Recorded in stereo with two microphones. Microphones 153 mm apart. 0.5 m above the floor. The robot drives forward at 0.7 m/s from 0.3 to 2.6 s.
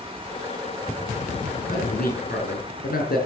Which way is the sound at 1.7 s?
80° left.